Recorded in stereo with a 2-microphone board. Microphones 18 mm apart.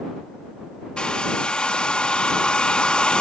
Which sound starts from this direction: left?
A hair dryer, at 1.0 s.